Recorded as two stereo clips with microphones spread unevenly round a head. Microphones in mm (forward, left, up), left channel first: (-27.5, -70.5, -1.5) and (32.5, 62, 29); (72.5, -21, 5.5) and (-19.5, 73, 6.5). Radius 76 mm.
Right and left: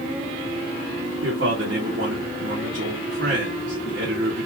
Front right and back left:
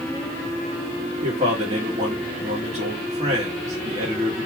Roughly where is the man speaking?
Left.